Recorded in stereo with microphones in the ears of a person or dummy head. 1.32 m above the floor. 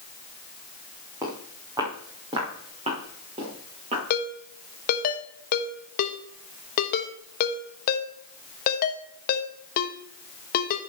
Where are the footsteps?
20° right (ahead or behind), 4 m; by 4.0 s 35° right (ahead or behind), 5 m.